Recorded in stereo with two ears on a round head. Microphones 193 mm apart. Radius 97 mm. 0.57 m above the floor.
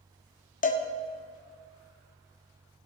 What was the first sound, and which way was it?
A cowbell, 40° left (ahead or behind).